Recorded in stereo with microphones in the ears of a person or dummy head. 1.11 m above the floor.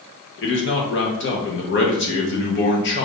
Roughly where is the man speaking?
Left.